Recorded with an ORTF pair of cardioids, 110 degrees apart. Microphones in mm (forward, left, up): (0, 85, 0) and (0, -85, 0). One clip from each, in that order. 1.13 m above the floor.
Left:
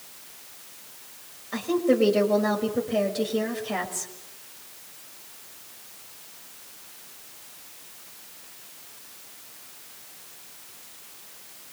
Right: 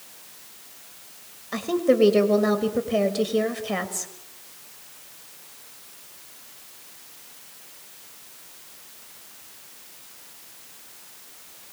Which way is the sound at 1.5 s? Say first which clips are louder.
Right 2 dB; 25° right.